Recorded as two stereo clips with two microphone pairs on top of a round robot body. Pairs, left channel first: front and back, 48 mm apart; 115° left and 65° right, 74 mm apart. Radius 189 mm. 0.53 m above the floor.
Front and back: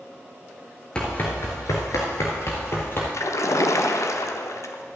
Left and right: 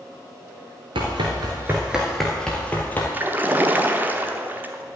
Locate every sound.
0.9 s running footsteps: 70° right, 0.8 m; by 3.0 s 45° left, 1.4 m
3.1 s a splash: straight ahead, 0.9 m